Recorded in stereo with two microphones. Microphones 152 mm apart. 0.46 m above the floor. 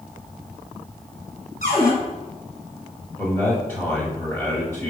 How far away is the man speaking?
About 1.3 m.